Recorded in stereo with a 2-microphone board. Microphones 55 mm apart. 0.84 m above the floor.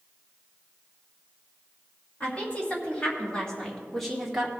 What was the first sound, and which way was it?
A woman speaking, 25° left (ahead or behind).